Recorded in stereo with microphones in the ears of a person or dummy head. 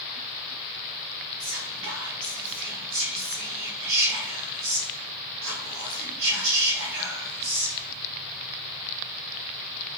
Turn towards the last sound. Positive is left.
turn(degrees=-70)  # may be behind; listen again after turning